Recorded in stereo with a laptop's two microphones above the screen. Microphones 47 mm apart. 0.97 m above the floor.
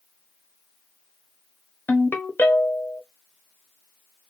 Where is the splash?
I don't hear a splash.